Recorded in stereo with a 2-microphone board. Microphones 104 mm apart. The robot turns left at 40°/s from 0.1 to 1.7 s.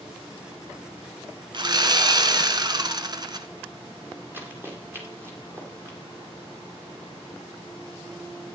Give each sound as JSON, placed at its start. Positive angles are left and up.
{"t": 1.5, "sound": "sawing", "side_deg": -50, "distance_m": 1.0}
{"t": 4.3, "sound": "running footsteps", "side_deg": -20, "distance_m": 4.0}